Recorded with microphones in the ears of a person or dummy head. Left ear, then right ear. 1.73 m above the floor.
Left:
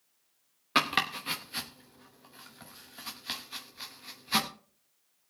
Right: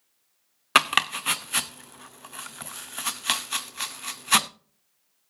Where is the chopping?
45° right (ahead or behind), 0.5 m.